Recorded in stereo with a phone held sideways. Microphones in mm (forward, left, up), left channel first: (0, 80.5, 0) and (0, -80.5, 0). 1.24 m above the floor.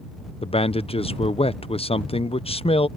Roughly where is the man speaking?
Left.